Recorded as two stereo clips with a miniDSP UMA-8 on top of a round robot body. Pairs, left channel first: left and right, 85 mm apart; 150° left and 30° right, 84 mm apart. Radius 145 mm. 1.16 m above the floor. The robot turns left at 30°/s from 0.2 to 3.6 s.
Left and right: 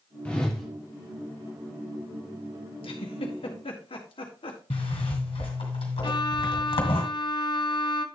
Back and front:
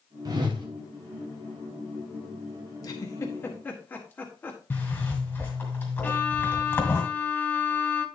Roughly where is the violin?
Left.